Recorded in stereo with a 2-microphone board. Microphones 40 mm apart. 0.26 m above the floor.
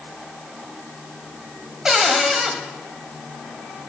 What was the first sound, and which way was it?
A cupboard door, 15° right (ahead or behind).